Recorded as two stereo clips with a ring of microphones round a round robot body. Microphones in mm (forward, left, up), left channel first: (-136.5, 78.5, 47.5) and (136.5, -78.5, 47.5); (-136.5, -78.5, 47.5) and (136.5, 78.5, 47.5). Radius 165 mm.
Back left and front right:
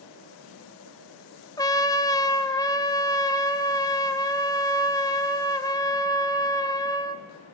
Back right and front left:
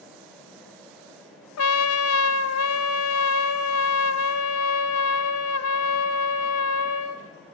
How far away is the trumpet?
About 1.6 m.